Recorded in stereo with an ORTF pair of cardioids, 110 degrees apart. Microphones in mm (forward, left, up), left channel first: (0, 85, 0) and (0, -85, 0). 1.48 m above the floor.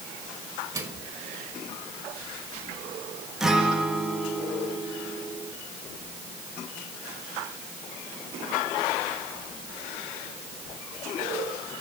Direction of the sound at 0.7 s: 15° right.